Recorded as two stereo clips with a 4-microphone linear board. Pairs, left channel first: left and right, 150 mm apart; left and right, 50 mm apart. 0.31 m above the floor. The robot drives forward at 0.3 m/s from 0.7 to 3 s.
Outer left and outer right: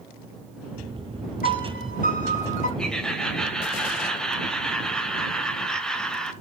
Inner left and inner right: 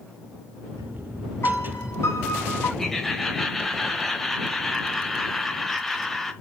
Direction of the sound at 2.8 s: 5° left (ahead or behind).